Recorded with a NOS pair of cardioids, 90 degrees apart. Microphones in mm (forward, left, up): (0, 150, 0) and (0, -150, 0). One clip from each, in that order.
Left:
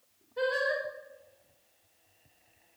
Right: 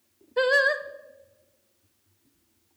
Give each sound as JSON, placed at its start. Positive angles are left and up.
{"t": 0.4, "sound": "singing", "azimuth_deg": -60, "distance_m": 0.7}